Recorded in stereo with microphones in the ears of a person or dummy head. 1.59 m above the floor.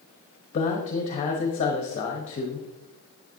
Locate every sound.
0.5 s a man speaking: 35° left (ahead or behind), 0.9 m